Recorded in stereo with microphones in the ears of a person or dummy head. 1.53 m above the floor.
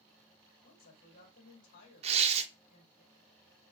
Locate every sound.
0.6 s a woman speaking: 50° left (ahead or behind), 3 m
2.0 s tearing paper: 35° right (ahead or behind), 0.8 m